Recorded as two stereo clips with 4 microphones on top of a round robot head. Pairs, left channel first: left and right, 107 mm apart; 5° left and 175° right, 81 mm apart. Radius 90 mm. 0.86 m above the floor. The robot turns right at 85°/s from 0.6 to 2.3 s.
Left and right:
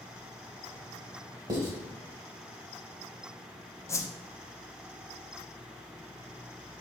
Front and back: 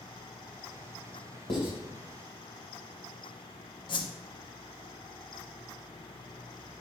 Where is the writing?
40° right, 2 m; by 1.7 s 20° right, 2 m.